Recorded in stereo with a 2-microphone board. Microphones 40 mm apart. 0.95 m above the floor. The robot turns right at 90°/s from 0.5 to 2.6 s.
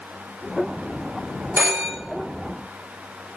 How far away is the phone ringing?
About 1.2 m.